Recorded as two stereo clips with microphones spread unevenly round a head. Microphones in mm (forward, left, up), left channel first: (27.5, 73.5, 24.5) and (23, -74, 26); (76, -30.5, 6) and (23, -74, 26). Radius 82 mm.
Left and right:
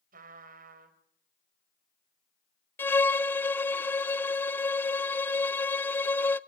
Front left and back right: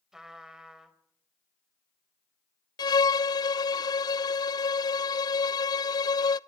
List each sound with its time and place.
0.1 s a trumpet: 60° right, 4 m
2.8 s a violin: 15° left, 0.7 m